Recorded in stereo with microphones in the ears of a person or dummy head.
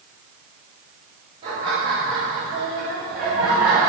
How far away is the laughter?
About 5.5 m.